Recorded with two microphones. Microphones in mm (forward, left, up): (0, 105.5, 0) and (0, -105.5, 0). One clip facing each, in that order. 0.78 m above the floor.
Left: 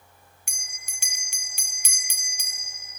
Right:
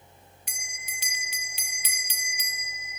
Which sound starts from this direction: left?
A bell, at 0.5 s.